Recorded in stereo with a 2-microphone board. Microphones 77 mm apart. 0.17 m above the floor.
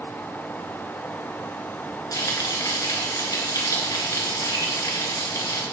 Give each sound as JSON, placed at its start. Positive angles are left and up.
{"t": 2.1, "sound": "frying", "side_deg": 50, "distance_m": 1.8}